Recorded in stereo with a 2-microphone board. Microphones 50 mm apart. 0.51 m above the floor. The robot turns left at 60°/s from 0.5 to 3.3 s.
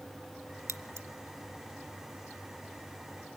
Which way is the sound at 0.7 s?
75° right (ahead or behind).